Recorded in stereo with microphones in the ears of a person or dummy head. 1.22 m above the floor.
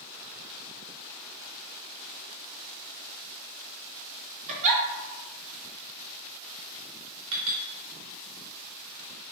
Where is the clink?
75° right (ahead or behind), 1.1 m.